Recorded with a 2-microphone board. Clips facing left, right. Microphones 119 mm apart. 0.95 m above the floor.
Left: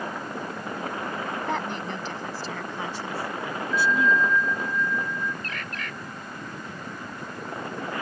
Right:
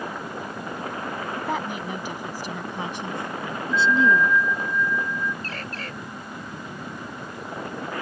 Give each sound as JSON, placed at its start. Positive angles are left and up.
{"t": 1.4, "sound": "a woman speaking", "side_deg": -5}
{"t": 3.7, "sound": "a bell", "side_deg": 20}
{"t": 5.4, "sound": "a bird", "side_deg": -35}